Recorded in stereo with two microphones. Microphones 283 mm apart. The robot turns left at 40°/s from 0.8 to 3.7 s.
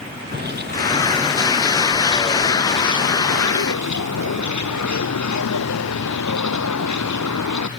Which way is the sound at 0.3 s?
145° right.